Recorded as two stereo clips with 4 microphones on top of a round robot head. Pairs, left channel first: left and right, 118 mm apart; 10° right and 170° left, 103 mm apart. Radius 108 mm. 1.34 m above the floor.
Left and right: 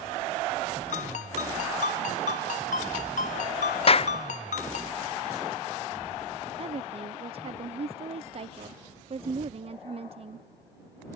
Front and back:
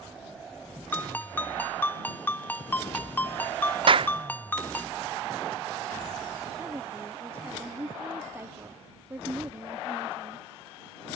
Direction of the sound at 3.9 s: 130° left.